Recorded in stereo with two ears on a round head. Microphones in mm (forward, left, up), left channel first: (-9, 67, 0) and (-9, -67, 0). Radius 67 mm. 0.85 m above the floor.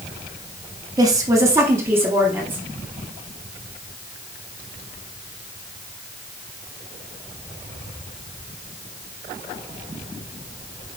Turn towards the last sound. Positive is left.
turn(degrees=-15)  # may be behind; listen again after turning